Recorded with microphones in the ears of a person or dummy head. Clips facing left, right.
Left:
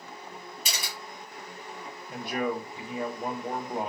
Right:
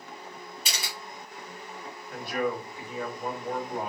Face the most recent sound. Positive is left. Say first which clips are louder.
# even
turn(degrees=25)  # may be behind; listen again after turning